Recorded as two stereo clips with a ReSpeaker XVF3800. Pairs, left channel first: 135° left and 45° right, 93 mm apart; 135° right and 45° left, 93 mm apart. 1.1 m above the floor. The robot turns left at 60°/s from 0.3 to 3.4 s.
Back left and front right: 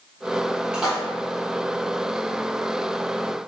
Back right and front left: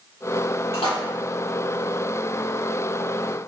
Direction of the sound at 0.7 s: 125° right.